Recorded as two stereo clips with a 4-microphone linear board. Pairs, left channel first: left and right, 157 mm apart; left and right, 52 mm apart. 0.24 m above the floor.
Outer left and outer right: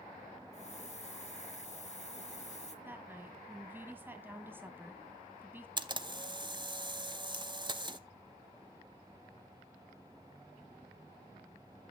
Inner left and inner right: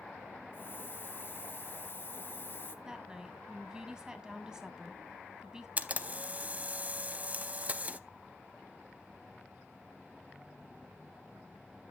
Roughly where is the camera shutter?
Right.